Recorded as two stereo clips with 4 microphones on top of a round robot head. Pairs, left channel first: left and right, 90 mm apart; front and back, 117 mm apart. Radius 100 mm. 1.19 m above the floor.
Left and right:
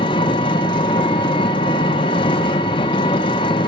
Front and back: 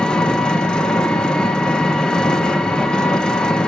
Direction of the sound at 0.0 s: 80° left.